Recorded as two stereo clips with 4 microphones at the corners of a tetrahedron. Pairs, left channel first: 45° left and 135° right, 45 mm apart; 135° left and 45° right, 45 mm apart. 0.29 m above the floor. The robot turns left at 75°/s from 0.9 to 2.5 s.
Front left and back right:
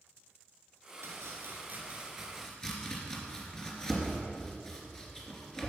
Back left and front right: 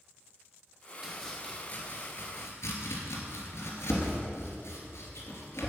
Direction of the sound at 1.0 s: 125° right.